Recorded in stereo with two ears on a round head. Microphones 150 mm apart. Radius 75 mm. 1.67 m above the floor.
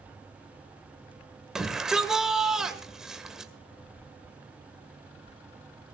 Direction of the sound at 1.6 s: 5° right (ahead or behind).